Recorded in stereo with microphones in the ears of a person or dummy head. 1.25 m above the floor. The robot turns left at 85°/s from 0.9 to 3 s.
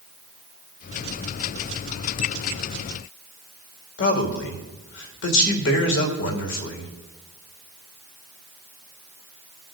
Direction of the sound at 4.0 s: 60° left (ahead or behind).